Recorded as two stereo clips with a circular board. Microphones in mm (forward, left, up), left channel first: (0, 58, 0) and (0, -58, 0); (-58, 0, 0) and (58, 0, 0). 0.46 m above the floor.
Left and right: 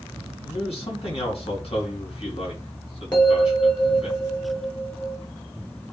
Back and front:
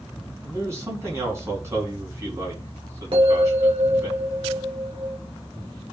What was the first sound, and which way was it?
A man speaking, 65° left.